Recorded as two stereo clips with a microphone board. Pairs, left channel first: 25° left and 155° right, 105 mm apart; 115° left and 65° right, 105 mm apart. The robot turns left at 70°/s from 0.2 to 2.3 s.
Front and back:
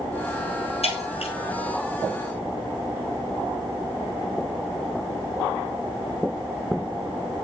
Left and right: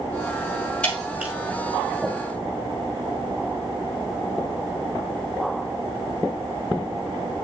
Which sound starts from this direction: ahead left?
Breaking glass, at 0.8 s.